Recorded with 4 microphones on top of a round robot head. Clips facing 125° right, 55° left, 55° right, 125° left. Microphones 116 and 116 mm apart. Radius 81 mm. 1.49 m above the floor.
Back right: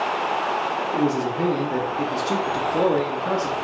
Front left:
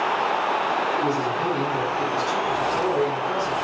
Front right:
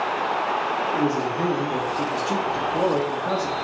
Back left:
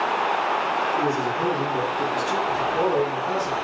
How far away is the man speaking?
About 0.6 m.